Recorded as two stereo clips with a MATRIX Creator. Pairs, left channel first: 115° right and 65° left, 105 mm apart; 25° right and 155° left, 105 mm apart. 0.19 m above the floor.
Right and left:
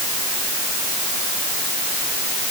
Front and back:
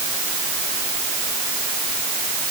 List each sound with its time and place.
Only background noise.